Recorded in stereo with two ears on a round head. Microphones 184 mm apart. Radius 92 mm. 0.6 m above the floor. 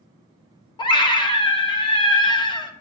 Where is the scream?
25° left (ahead or behind), 0.8 m.